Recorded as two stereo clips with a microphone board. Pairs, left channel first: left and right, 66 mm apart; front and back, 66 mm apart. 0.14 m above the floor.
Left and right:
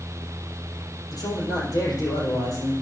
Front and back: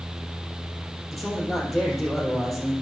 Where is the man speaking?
90° left, 4 m.